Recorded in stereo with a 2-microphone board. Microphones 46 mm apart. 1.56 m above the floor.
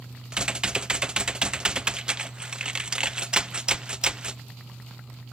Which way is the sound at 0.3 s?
20° right (ahead or behind).